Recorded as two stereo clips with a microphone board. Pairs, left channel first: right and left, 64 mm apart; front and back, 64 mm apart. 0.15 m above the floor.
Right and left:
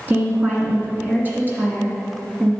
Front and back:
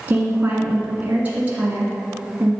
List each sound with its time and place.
0.1 s a woman speaking: 130° left, 1.7 m